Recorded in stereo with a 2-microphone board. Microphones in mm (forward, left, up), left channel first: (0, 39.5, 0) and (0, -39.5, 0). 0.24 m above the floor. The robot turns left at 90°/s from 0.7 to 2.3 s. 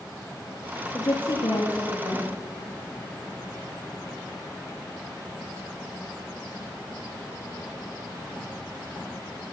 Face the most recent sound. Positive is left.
turn(degrees=30)